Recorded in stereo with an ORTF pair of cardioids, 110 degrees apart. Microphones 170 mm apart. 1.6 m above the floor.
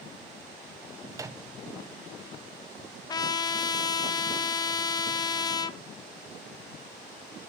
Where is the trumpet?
25° left, 0.6 m.